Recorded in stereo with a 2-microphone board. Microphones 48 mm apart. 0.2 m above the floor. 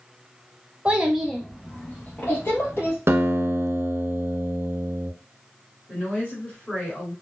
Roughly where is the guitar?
Right.